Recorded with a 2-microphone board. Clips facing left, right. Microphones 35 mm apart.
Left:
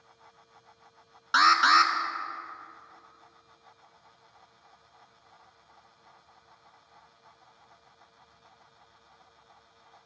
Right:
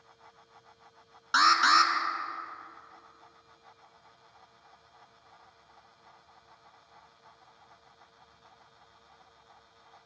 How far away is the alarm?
About 1.0 m.